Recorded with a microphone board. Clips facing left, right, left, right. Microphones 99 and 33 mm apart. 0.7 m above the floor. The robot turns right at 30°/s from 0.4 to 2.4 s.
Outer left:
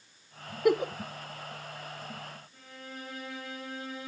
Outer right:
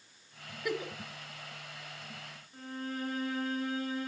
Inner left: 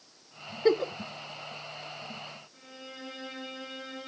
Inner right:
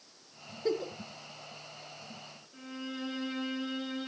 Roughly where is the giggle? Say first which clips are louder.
Outer left 10 dB, inner left 7 dB; left.